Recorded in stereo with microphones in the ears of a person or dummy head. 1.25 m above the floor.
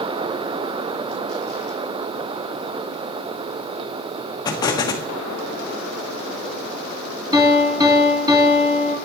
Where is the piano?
15° right (ahead or behind), 3 m.